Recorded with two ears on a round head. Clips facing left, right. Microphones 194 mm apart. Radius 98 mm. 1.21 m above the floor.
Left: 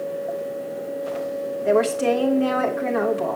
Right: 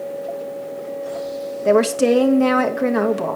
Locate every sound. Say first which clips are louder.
1.6 s a woman speaking: right 4 dB; 55° right (ahead or behind), 1.2 m